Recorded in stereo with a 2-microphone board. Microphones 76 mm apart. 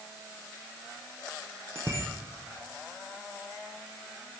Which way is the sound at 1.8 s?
30° right (ahead or behind).